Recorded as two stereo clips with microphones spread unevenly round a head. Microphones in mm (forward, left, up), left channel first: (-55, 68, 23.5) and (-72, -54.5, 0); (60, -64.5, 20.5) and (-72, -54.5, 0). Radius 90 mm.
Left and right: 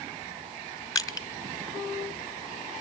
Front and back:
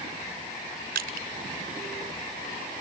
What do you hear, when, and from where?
0.9 s crushing: 135° left, 2 m